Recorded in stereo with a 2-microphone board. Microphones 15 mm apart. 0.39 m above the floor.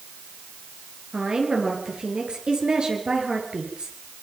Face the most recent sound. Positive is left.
turn(degrees=-70)  # may be behind; listen again after turning